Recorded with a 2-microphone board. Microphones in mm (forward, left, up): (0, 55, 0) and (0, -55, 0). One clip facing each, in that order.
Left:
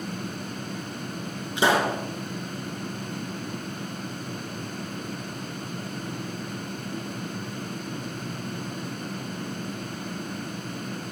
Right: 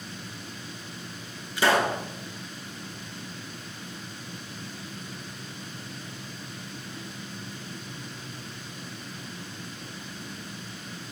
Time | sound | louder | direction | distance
1.6 | a pop | left 1 dB | 25° left (ahead or behind) | 3 m